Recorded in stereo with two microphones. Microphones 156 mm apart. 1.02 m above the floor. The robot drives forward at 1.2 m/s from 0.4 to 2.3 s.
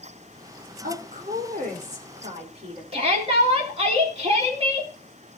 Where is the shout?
40° right (ahead or behind), 3 m.